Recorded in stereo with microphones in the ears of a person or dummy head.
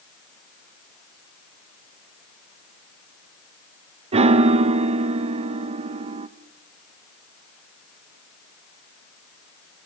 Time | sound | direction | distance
4.1 | a piano | 35° right (ahead or behind) | 0.6 m